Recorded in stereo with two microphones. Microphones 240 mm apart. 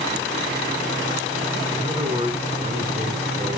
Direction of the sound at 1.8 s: 15° right (ahead or behind).